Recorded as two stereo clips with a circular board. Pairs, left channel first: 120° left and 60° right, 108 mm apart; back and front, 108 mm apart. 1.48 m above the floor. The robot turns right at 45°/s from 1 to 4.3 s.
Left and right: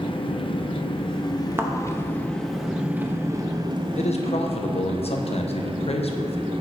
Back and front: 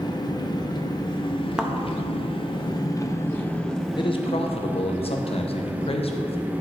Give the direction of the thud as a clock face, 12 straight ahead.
2 o'clock.